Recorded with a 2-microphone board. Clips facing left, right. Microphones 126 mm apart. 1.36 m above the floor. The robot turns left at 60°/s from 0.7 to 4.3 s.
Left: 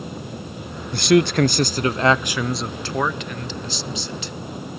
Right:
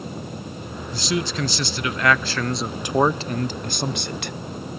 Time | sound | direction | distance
0.9 | a man speaking | 100° left | 0.5 m